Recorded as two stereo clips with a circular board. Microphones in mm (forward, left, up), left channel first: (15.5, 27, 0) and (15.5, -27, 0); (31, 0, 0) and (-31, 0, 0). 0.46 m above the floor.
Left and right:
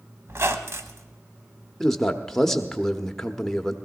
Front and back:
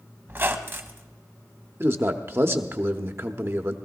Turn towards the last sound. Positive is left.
turn(degrees=170)